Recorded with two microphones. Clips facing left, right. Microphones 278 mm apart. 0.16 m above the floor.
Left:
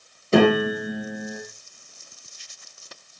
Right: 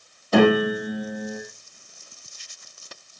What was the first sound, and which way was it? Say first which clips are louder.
A piano: even; 25° left (ahead or behind).